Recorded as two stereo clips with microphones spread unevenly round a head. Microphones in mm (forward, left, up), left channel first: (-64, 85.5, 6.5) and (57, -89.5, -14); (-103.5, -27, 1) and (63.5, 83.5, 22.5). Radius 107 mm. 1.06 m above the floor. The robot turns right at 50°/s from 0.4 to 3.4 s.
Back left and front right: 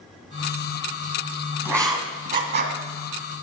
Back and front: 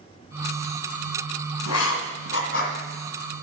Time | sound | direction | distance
1.6 | writing | 140° right | 1.8 m